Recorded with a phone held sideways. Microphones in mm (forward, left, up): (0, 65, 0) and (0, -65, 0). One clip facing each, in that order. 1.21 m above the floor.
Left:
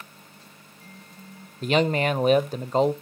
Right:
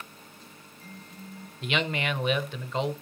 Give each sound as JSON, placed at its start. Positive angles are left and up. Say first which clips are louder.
{"t": 1.6, "sound": "a man speaking", "louder": "left 8 dB", "side_deg": 45, "distance_m": 0.6}